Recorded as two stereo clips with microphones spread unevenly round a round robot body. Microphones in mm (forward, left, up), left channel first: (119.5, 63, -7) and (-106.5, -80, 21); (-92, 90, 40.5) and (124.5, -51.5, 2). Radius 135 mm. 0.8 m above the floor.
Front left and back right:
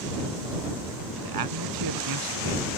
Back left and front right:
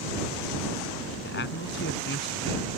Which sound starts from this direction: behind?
A man speaking, at 1.2 s.